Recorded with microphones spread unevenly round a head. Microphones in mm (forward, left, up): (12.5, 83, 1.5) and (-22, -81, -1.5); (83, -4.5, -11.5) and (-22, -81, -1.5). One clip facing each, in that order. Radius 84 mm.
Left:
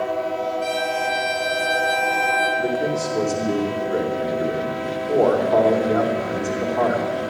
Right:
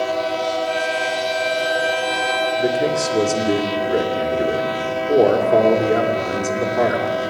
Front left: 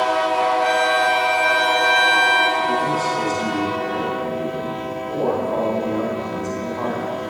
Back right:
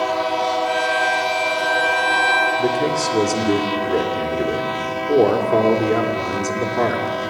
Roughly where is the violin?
Ahead left.